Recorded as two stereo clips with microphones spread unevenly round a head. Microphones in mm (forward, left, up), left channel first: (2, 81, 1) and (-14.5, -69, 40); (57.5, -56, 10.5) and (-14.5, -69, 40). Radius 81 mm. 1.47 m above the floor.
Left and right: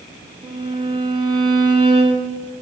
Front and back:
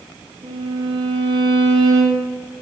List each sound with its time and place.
0.4 s a violin: 160° right, 1.8 m